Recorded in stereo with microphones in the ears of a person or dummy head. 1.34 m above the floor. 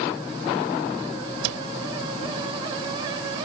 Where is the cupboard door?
85° right.